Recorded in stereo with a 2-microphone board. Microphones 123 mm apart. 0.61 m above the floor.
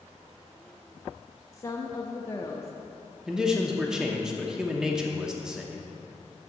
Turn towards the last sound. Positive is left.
turn(degrees=-5)  # may be behind; listen again after turning